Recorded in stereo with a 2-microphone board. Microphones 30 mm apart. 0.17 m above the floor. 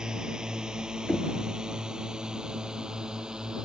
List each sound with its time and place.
0.0 s a drone: 30° right (ahead or behind)
1.1 s knocking: 60° left (ahead or behind)